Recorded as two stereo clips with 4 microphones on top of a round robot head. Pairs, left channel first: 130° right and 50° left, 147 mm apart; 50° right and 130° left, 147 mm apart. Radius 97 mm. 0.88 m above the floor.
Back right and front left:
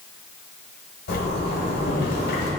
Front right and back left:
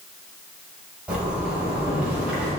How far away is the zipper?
About 1.6 m.